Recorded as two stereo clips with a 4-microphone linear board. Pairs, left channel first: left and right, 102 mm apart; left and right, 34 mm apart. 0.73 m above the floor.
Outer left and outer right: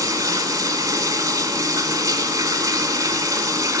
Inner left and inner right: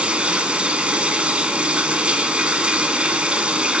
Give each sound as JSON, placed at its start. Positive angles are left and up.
{"t": 0.0, "sound": "running water", "side_deg": -35, "distance_m": 1.0}